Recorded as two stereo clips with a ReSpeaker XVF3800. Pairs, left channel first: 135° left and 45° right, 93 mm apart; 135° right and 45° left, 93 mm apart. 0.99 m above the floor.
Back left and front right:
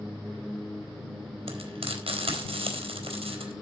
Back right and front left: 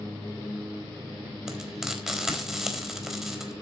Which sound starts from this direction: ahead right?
Frying, at 1.5 s.